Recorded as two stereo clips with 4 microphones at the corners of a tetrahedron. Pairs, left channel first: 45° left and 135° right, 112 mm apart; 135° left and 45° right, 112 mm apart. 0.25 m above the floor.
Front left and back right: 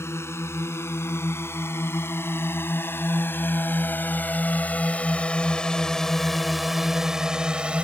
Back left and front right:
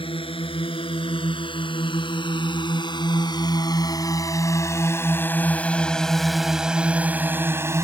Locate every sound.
0.0 s a drone: 110° left; by 7.9 s 65° right